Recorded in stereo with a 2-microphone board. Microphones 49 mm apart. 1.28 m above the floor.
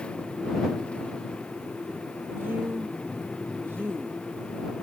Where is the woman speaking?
50° right (ahead or behind).